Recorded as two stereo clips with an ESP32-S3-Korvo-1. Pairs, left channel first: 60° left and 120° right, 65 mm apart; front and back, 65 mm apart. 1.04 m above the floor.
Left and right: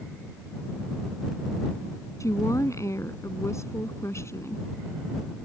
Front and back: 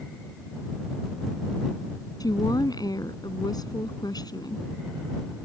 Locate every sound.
2.2 s a woman speaking: 20° left; by 4.7 s 10° left